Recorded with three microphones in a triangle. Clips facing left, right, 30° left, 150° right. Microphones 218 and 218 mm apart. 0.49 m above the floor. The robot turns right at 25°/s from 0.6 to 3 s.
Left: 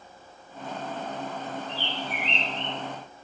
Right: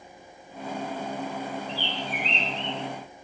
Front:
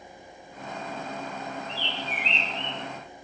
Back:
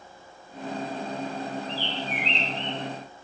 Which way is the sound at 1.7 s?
70° left.